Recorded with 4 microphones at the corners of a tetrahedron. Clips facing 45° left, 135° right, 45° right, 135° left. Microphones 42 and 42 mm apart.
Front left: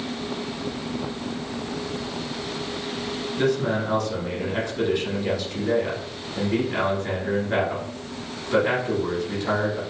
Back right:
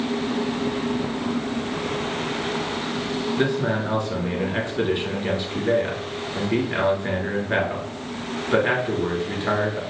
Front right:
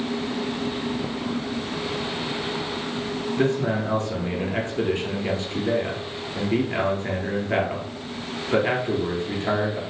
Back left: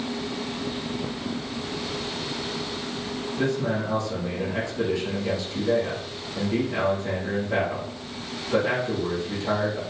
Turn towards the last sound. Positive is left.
turn(degrees=-80)